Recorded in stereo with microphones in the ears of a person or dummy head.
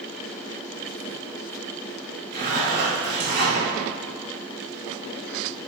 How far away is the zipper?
About 1.0 m.